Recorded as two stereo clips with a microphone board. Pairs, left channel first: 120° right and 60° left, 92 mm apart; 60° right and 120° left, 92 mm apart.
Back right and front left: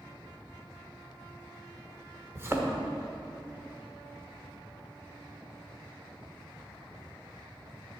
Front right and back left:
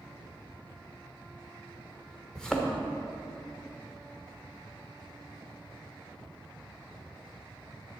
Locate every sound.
2.4 s a thud: 20° left, 1.2 m